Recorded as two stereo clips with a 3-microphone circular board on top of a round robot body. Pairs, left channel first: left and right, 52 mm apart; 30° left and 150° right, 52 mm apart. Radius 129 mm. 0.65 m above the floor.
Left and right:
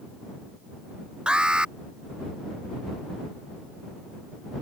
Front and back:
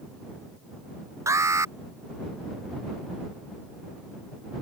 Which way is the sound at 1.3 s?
165° right.